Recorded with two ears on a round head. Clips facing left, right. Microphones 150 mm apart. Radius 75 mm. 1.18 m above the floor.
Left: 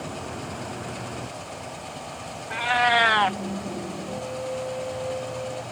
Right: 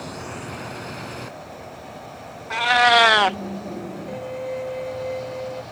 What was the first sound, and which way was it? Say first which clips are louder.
A cat meowing: right 5 dB; 50° right (ahead or behind).